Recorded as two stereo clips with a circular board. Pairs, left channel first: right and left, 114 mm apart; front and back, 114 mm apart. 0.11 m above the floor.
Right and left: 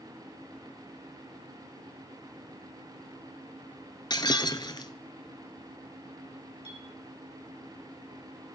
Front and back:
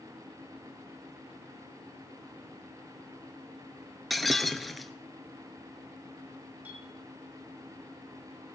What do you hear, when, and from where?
4.1 s breaking glass: 90° right, 1.0 m
6.7 s a clink: 105° left, 4 m